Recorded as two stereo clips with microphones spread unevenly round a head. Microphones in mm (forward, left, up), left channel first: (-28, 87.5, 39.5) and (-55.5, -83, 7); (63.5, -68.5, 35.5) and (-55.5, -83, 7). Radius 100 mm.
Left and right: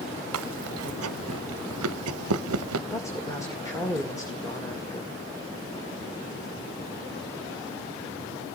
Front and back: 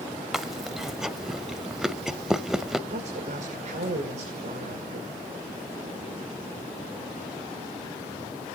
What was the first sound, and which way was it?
Chewing, 80° right.